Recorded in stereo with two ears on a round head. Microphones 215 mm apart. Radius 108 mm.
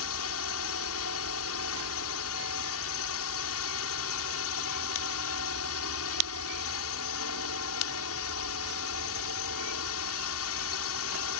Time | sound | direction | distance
0.0 | a drone | 65° left (ahead or behind) | ?